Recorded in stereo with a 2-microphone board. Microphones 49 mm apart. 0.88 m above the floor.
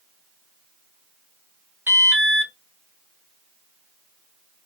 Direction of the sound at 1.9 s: 35° right (ahead or behind).